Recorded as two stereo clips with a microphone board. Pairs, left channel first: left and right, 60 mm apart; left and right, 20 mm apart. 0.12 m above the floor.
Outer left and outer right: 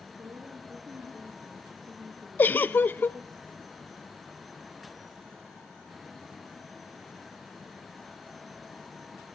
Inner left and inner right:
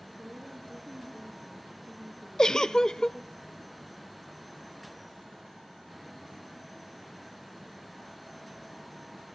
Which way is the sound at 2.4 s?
30° left (ahead or behind).